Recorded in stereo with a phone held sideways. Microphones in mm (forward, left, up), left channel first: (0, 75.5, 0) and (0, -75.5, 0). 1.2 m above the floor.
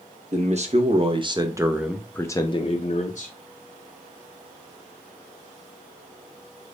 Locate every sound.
0.3 s a man speaking: 55° right (ahead or behind), 1.0 m; by 3.4 s 60° left (ahead or behind), 0.8 m